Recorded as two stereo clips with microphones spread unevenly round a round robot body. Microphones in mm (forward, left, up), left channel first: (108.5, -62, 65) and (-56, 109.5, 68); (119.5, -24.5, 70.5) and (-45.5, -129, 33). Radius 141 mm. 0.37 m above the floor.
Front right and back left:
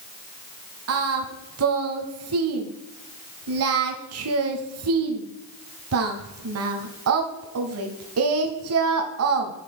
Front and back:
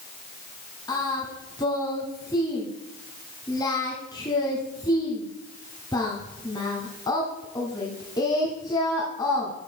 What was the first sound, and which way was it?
Singing, 110° left.